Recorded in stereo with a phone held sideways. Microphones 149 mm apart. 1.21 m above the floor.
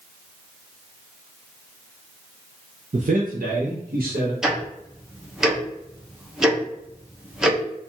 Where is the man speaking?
50° right (ahead or behind), 0.5 m; by 4.3 s 85° right, 1.6 m.